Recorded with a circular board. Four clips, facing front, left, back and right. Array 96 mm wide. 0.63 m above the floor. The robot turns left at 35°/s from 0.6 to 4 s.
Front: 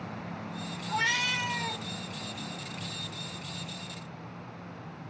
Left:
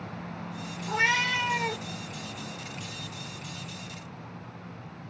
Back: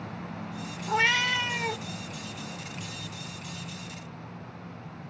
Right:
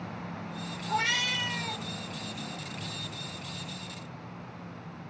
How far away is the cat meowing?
About 0.8 m.